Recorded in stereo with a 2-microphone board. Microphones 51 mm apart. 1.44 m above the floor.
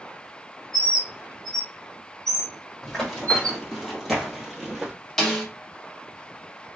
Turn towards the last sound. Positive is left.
turn(degrees=5)  # may be behind; listen again after turning